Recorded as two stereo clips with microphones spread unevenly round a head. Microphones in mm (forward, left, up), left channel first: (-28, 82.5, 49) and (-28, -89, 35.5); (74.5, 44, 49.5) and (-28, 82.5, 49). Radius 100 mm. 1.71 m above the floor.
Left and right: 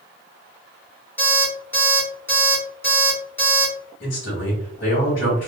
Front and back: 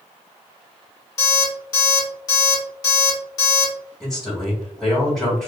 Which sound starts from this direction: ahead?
An alarm clock, at 1.2 s.